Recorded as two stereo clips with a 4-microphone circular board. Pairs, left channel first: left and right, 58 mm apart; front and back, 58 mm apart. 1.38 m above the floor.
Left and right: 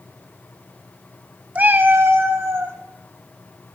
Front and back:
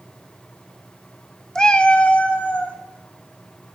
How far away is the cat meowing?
About 0.7 m.